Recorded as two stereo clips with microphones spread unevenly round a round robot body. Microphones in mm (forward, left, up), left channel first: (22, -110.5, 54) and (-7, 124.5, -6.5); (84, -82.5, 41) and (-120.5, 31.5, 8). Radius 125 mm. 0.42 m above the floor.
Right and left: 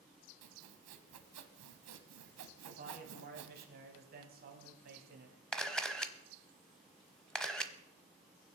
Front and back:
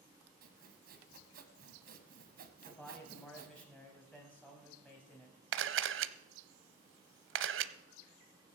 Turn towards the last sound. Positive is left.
turn(degrees=-170)